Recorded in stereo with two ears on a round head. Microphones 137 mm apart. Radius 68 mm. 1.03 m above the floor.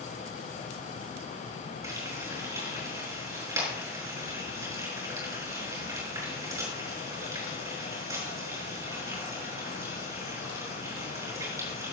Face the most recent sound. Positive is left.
turn(degrees=-20)  # may be behind; listen again after turning